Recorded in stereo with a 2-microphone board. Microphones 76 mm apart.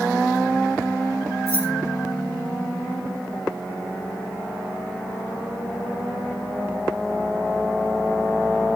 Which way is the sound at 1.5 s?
40° right (ahead or behind).